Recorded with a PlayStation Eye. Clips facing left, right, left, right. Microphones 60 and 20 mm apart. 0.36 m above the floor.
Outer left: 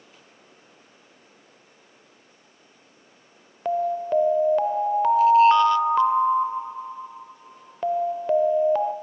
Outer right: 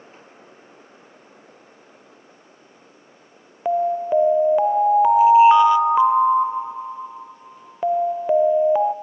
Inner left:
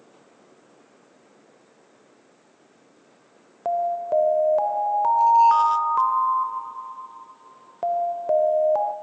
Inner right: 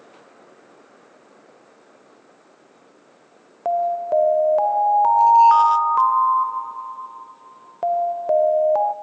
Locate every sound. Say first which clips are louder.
3.6 s an alarm: outer right 4 dB, inner right 3 dB; 10° right (ahead or behind), 0.8 m